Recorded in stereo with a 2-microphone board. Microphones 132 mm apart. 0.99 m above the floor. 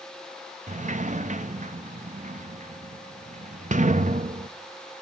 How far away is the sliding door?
About 0.5 m.